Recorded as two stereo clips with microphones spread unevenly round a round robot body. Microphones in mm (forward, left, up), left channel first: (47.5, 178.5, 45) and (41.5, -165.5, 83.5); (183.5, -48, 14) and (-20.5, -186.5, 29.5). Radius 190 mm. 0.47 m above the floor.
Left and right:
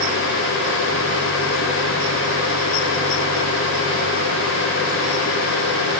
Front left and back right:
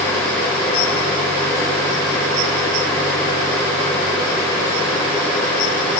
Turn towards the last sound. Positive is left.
No sound to turn to.